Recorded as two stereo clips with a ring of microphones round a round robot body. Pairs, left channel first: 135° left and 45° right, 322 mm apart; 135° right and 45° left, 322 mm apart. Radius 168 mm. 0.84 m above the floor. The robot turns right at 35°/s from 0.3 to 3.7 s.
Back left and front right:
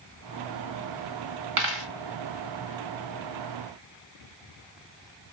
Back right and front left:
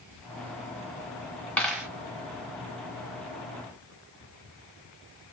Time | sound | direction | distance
1.6 | a dropped coin | 50° right | 1.0 m